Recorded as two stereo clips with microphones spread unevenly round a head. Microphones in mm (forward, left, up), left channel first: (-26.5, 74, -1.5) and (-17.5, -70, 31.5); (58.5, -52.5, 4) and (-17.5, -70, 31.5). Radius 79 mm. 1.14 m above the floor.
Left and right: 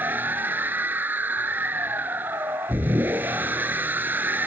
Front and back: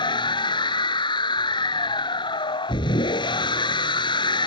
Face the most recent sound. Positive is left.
turn(degrees=-10)